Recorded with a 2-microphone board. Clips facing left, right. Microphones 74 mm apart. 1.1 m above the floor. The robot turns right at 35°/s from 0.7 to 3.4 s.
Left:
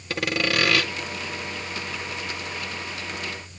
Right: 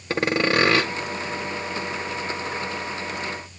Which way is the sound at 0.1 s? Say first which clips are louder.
Right 4 dB; 30° right (ahead or behind).